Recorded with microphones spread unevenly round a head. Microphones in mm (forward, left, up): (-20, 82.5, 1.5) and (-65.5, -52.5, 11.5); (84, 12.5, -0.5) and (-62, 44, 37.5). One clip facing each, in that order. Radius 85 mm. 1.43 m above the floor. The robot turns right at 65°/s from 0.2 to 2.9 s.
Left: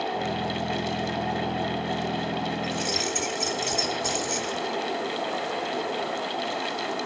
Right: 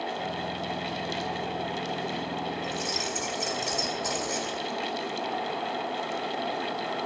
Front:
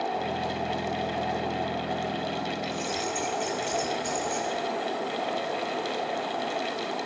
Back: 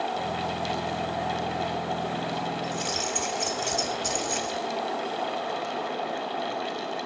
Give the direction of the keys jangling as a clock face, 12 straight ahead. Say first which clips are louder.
Left 3 dB, even; 8 o'clock.